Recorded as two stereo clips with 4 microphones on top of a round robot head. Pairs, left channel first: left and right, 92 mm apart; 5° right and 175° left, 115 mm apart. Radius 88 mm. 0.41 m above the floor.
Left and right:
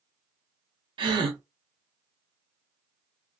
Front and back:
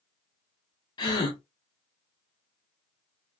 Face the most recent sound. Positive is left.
turn(degrees=-60)